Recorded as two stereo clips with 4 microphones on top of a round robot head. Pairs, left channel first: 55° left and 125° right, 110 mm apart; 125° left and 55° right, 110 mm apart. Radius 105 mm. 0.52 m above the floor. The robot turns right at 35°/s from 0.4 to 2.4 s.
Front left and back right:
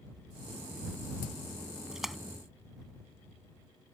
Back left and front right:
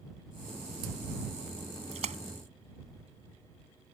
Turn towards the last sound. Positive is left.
turn(degrees=-25)